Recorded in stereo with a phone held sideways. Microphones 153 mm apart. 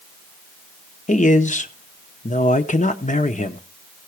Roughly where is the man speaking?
Left.